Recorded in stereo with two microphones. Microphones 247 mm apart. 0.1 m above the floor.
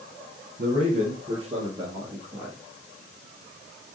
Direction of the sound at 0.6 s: 35° right (ahead or behind).